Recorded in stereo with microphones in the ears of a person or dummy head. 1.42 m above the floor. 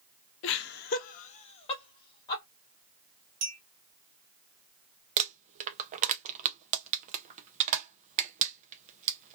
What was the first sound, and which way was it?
Laughter, 70° left (ahead or behind).